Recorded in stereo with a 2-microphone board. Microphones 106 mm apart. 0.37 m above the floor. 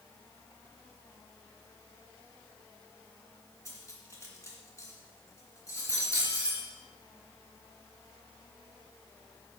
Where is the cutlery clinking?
30° left (ahead or behind), 2.5 m.